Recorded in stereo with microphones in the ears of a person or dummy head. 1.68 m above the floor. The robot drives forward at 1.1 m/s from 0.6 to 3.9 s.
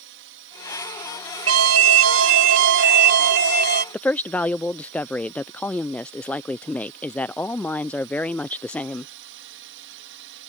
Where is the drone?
60° right (ahead or behind); by 10.5 s 65° right (ahead or behind).